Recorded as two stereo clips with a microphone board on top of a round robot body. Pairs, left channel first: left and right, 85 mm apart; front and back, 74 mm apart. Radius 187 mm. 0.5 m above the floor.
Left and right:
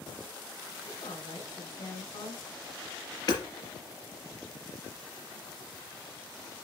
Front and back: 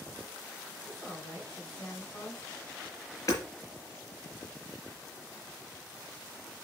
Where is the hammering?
50° left, 3.5 m.